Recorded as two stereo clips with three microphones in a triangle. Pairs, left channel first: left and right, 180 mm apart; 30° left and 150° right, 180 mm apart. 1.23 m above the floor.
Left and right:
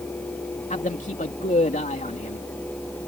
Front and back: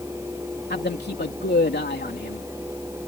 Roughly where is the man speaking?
Ahead left.